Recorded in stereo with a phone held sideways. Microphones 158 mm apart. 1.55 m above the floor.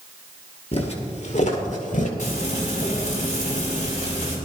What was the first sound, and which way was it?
Footsteps, 40° left (ahead or behind).